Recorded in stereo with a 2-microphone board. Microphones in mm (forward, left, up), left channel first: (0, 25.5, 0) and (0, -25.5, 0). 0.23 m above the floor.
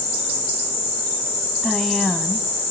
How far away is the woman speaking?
About 1.9 m.